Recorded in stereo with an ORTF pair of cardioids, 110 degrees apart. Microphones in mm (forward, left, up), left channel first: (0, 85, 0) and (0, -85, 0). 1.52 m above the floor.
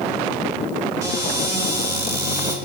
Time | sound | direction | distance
1.0 | a cupboard door | 20° right | 5.5 m